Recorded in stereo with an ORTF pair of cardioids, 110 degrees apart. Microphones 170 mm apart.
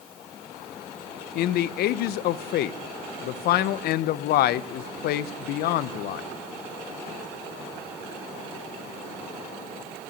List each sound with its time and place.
1.4 s a man speaking: 70° left, 0.5 m